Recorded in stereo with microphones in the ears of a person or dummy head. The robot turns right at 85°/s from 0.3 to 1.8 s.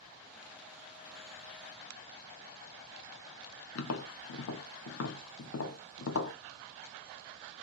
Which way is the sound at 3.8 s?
75° left (ahead or behind).